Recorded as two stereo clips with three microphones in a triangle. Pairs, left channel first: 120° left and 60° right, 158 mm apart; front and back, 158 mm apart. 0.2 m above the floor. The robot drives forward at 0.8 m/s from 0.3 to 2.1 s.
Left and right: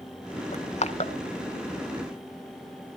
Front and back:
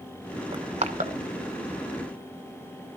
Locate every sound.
0.5 s crushing: 135° left, 0.8 m; by 1.1 s 155° left, 1.1 m